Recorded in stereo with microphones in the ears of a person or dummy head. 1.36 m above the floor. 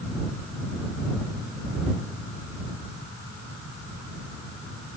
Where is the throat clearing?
I don't hear throat clearing.